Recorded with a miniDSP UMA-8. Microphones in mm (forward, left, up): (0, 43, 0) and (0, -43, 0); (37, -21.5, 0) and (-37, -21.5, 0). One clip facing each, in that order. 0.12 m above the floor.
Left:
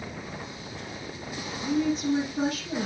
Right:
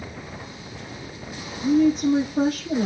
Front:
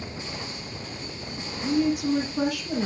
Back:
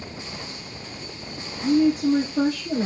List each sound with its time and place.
1.6 s a woman speaking: 130° right, 2.5 m